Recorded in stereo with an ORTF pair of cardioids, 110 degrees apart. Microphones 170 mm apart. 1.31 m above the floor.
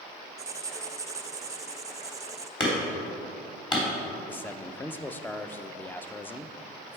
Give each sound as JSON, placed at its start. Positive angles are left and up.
{"t": 0.4, "sound": "writing", "azimuth_deg": -20, "distance_m": 0.5}
{"t": 2.6, "sound": "hammering", "azimuth_deg": 25, "distance_m": 2.5}
{"t": 4.3, "sound": "a man speaking", "azimuth_deg": 10, "distance_m": 0.6}